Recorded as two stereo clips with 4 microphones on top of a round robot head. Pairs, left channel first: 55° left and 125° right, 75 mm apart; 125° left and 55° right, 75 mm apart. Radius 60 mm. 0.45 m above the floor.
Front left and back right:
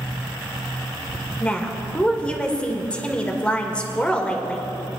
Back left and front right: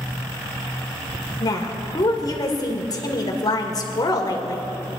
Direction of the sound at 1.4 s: 125° left.